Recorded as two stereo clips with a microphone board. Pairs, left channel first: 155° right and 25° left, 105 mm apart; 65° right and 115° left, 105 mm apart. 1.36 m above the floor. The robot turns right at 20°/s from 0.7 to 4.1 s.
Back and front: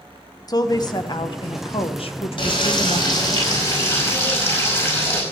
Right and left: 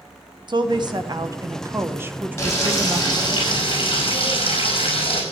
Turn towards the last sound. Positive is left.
turn(degrees=-100)